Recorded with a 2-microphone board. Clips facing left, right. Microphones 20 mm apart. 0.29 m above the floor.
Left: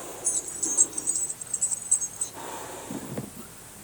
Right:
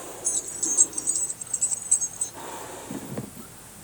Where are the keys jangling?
25° right (ahead or behind); by 2.3 s 30° right (ahead or behind).